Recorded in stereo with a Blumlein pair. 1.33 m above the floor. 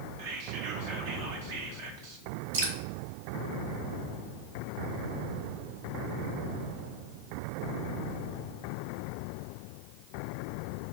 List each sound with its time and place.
0.2 s whispering: 50° right, 1.9 m
2.5 s dripping: 60° right, 1.7 m